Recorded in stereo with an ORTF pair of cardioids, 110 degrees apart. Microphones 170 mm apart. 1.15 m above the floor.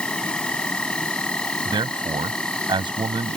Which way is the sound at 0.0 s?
5° left.